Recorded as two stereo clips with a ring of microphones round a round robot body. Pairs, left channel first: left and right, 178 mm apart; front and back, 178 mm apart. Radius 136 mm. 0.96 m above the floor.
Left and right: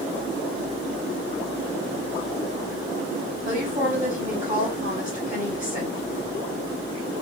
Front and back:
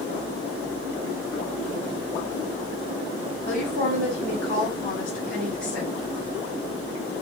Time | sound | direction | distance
3.5 | a woman speaking | 40° right | 1.5 m